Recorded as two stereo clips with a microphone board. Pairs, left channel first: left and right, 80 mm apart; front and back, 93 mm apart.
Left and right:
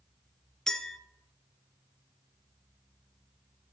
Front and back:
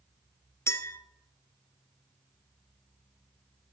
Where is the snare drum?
No snare drum in this recording.